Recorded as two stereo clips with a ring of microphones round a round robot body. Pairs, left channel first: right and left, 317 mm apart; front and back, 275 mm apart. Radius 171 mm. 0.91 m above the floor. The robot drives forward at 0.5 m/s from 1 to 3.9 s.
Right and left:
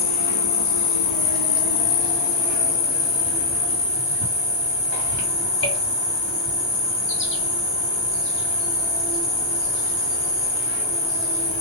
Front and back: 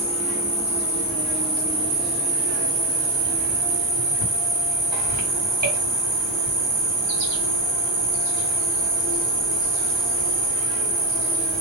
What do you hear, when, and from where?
0.0 s an insect: 80° right, 1.0 m; by 11.6 s 145° right, 1.6 m